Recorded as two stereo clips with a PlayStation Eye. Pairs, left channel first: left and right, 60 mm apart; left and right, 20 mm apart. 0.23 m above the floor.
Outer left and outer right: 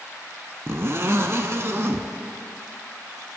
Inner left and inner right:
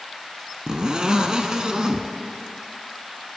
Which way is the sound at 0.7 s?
45° right (ahead or behind).